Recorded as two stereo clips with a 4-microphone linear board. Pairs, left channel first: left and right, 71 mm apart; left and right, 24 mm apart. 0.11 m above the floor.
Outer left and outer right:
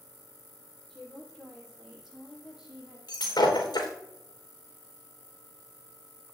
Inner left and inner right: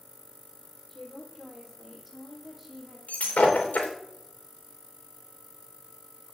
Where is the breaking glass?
75° left (ahead or behind), 3 m.